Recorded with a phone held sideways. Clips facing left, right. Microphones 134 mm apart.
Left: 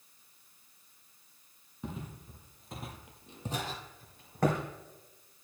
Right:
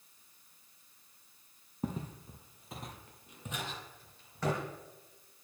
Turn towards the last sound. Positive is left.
turn(degrees=55)  # may be behind; listen again after turning